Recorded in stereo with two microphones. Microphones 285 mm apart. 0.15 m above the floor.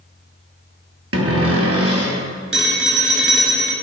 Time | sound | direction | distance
1.1 | a cupboard door | 55° right (ahead or behind) | 1.3 m
2.5 | a phone ringing | 45° right (ahead or behind) | 1.4 m